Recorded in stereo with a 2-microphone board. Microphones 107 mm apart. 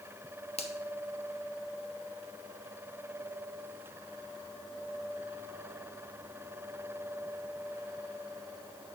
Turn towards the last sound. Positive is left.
turn(degrees=75)  # may be behind; listen again after turning